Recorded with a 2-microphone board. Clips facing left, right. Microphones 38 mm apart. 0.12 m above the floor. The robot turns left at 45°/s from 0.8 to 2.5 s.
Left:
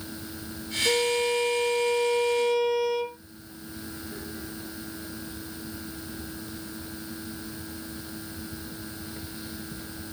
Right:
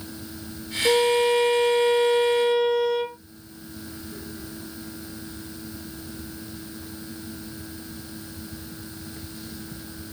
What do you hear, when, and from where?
0.8 s a violin: 70° right, 1.2 m; by 3.2 s 145° right, 1.2 m